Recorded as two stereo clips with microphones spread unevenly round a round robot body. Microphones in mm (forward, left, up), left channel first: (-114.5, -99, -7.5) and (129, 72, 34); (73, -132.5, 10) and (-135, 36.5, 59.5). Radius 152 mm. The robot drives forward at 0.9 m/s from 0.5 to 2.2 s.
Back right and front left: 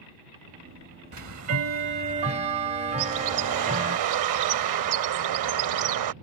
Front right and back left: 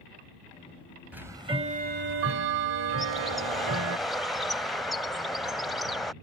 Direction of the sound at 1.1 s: 50° left.